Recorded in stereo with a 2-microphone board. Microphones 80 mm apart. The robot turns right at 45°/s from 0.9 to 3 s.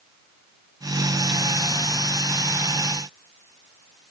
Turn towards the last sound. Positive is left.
No sound to turn to.